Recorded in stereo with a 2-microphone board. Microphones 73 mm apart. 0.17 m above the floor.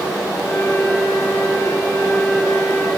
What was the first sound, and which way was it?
A flute, 30° left (ahead or behind).